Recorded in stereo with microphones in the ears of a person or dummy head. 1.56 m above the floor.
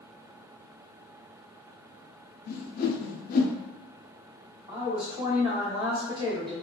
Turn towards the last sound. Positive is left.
turn(degrees=-25)  # may be behind; listen again after turning